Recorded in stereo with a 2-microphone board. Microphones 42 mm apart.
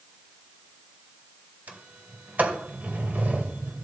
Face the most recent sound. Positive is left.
turn(degrees=-45)  # may be behind; listen again after turning